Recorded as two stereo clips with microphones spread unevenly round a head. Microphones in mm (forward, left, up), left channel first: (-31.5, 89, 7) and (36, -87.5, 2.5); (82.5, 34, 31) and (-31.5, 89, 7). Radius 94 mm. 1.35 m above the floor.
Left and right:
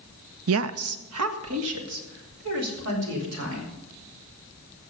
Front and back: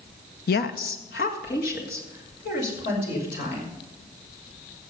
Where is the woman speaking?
50° right, 0.5 m; by 3.7 s 65° right, 5 m.